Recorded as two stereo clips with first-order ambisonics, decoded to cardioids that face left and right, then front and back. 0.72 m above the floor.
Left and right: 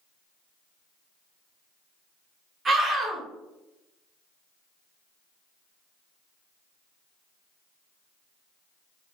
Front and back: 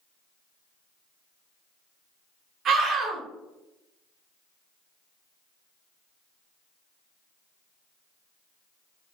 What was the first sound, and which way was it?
A scream, 145° right.